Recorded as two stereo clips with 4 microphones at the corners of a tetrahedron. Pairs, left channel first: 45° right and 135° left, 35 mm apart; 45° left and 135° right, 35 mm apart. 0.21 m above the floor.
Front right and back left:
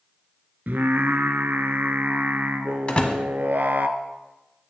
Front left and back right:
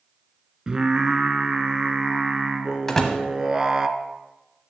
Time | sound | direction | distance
0.7 | singing | 155° left | 0.6 m
2.9 | a door slam | 25° right | 1.1 m